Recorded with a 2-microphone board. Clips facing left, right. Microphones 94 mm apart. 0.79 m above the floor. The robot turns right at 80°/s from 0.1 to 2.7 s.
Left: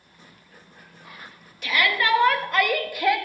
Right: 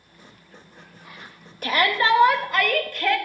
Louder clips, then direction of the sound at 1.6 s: Right 3 dB; 75° right.